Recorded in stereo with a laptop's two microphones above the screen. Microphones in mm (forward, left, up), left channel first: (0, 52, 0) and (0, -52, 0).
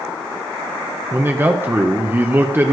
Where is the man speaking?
20° right (ahead or behind), 0.8 m.